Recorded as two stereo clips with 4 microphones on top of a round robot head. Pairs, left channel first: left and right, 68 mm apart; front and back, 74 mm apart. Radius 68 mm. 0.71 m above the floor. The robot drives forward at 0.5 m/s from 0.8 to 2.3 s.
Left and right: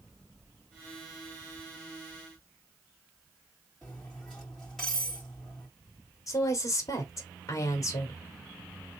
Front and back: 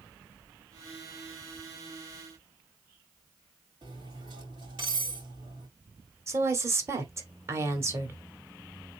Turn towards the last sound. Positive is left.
turn(degrees=130)